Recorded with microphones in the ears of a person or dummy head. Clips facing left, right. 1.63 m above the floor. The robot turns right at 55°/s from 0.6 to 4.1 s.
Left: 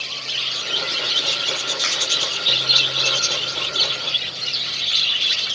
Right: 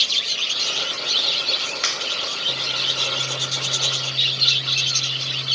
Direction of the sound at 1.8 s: 35° right (ahead or behind).